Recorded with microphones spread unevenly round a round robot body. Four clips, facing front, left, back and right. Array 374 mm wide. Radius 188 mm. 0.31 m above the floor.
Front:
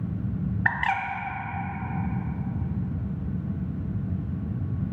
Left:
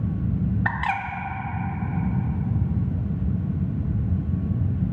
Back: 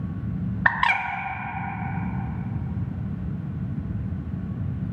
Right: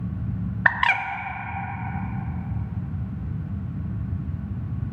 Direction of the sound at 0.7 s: 120° right.